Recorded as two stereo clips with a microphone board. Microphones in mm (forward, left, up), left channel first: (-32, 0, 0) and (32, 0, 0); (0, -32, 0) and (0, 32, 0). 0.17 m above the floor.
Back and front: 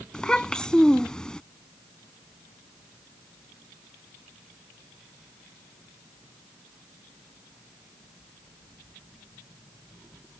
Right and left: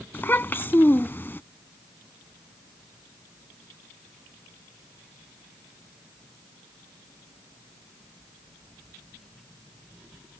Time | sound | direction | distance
0.1 | a child speaking | 110° right | ?